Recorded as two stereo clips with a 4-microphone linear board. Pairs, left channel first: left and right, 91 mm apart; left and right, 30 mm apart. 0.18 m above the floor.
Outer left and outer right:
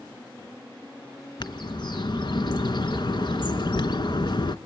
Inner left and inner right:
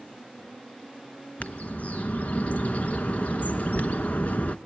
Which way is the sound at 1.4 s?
55° left (ahead or behind).